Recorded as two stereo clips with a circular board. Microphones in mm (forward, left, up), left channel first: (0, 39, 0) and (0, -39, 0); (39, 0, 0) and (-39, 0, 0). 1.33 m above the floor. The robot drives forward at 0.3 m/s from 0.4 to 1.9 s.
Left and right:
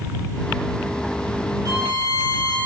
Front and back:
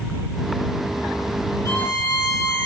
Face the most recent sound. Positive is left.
turn(degrees=-50)